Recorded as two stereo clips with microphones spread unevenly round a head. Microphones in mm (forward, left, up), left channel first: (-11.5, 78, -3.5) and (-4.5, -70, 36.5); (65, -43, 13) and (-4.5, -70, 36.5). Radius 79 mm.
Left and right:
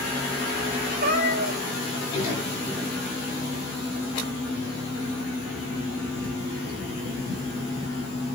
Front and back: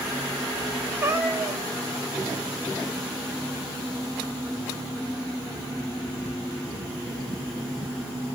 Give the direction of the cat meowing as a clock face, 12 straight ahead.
4 o'clock.